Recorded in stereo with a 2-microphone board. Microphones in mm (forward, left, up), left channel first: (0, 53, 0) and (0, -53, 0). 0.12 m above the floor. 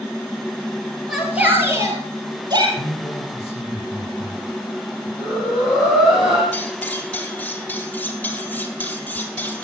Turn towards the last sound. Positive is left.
turn(degrees=15)  # may be behind; listen again after turning